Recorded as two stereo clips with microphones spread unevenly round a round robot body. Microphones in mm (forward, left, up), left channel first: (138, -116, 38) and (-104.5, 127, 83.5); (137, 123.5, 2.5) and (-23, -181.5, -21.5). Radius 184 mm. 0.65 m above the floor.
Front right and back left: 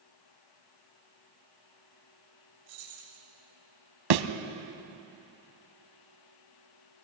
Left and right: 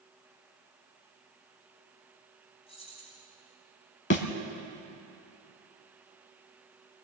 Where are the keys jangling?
140° left, 8.5 m.